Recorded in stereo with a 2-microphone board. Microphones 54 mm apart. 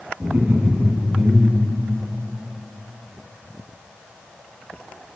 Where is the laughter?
35° right (ahead or behind), 1.1 m.